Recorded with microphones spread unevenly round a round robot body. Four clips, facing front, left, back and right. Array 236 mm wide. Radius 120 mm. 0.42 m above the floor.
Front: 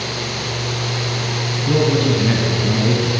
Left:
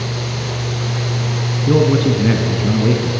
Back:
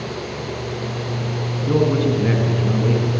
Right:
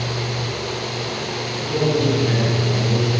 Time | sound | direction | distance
1.7 | a man speaking | 75° left | 3.5 m